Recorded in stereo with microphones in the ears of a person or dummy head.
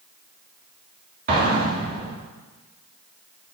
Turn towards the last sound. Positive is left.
turn(degrees=-45)  # may be behind; listen again after turning